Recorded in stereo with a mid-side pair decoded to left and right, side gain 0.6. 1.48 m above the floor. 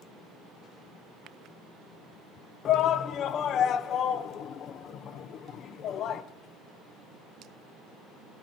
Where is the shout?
50° left, 0.8 m.